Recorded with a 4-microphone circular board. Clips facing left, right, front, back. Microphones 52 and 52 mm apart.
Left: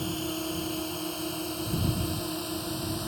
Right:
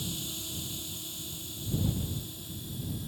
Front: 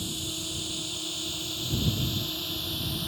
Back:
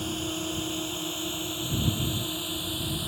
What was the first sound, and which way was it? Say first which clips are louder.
A drone: left 8 dB, back 5 dB; 130° left.